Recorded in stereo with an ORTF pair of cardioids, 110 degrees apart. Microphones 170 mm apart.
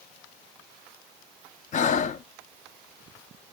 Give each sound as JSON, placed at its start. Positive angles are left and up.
{"t": 1.7, "sound": "breathing", "azimuth_deg": 45, "distance_m": 0.5}